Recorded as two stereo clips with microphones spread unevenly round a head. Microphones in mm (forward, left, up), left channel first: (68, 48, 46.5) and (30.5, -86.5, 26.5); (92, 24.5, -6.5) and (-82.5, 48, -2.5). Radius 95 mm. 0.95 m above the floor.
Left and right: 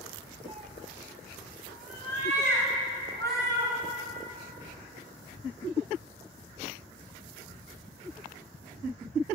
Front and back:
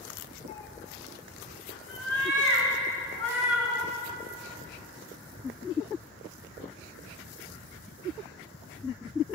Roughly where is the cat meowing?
Ahead right.